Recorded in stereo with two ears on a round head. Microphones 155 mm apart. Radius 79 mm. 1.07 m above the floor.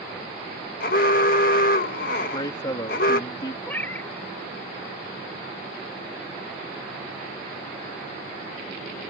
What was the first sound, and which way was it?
An alarm, 50° left (ahead or behind).